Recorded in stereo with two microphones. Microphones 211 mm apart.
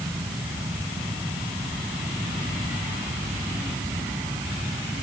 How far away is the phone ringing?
I don't hear a phone ringing.